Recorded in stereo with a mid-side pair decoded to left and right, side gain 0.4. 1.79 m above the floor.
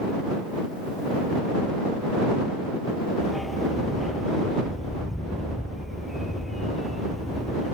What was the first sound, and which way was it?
A dog barking, 10° left.